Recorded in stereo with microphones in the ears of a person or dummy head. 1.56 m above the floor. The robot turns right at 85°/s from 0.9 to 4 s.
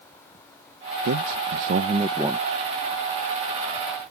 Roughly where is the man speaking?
Behind right.